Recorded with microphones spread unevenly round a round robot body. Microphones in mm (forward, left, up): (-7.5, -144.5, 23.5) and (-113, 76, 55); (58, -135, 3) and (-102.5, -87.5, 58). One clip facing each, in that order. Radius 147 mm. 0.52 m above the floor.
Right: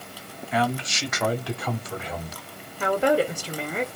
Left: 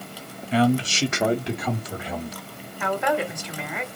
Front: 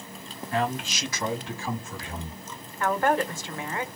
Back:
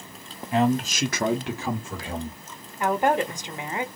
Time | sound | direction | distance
0.5 | a man speaking | 70° left | 1.2 m
2.8 | a woman speaking | 115° right | 1.8 m